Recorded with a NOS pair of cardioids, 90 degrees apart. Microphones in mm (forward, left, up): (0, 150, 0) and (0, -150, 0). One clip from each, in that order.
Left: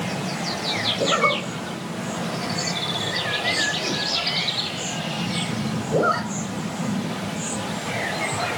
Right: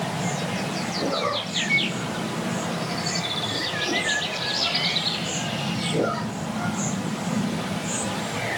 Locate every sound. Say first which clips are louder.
1.0 s a zipper: left 4 dB; 70° left, 5.5 m